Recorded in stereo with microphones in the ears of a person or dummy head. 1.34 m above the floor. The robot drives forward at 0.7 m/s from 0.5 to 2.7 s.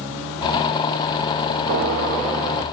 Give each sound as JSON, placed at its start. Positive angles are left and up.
{"t": 1.7, "sound": "a gunshot", "side_deg": -60, "distance_m": 1.4}